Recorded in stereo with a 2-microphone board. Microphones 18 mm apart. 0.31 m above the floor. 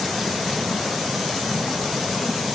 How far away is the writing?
I don't hear writing.